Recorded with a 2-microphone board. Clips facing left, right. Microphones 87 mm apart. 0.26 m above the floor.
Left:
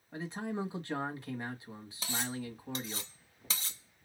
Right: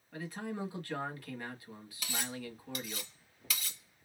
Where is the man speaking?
25° left (ahead or behind), 1.6 m.